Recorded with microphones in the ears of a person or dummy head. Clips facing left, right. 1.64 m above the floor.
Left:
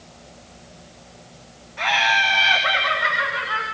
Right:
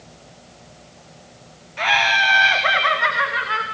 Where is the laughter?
45° right (ahead or behind), 1.4 m; by 3.6 s 65° right (ahead or behind), 2.5 m.